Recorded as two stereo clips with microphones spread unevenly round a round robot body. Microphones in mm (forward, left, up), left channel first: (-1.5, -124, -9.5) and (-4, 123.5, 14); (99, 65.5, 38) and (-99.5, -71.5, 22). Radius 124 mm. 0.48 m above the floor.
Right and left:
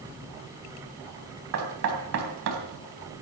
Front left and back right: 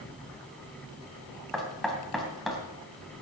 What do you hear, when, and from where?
1.5 s knocking: 125° left, 2.5 m